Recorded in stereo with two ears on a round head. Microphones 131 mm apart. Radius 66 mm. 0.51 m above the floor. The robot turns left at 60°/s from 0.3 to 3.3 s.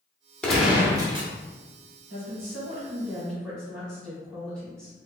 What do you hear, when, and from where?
0.4 s a gunshot: 5° left, 0.6 m; by 1.3 s 45° right, 0.6 m
2.1 s a woman speaking: 110° right, 1.7 m; by 5.1 s 175° left, 1.7 m